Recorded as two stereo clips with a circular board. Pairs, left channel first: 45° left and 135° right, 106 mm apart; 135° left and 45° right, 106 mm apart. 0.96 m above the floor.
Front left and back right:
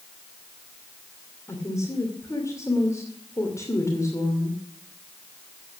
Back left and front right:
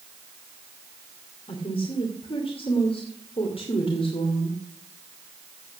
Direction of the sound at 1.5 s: 105° left.